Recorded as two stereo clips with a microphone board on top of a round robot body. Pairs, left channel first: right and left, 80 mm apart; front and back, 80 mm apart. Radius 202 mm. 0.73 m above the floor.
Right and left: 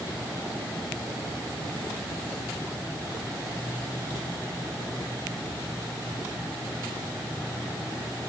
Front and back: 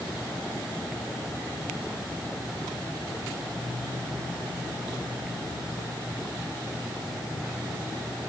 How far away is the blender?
I don't hear a blender.